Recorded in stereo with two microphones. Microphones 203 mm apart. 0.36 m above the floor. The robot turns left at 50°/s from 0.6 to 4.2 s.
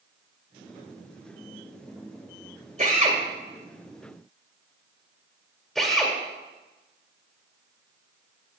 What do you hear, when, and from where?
2.8 s a drill: 35° right (ahead or behind), 1.7 m; by 6.2 s centre (ahead or behind), 1.7 m